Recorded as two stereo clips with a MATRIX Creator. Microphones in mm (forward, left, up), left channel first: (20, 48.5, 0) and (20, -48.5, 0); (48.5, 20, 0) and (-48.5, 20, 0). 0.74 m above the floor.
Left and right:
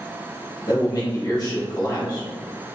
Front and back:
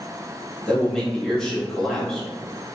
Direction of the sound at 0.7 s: 80° left.